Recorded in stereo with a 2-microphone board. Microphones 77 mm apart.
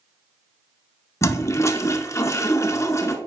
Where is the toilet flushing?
40° left (ahead or behind), 0.6 m.